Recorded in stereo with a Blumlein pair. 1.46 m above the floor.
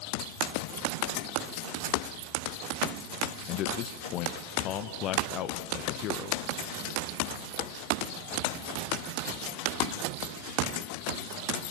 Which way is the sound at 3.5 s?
35° left.